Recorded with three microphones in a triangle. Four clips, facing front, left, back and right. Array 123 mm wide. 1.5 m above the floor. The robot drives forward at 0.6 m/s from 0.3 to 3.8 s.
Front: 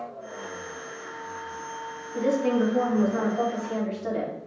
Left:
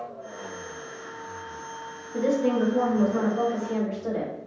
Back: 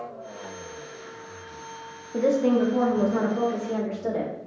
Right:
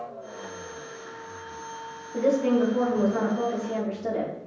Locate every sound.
2.1 s a woman speaking: 165° right, 1.0 m; by 4.3 s 170° right, 1.9 m